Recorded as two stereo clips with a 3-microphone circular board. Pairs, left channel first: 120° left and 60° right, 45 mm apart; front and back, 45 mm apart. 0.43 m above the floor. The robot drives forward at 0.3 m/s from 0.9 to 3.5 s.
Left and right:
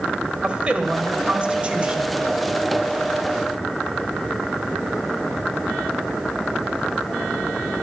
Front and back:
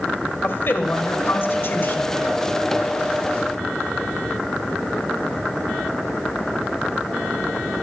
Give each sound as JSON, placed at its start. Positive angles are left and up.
{"t": 0.4, "sound": "a woman speaking", "azimuth_deg": -5, "distance_m": 2.0}